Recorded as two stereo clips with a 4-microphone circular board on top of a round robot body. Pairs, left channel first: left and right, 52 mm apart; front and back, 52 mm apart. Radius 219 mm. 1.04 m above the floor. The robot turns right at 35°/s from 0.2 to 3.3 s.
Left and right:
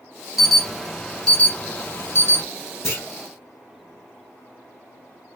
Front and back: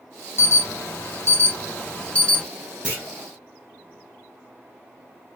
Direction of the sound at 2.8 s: 110° left.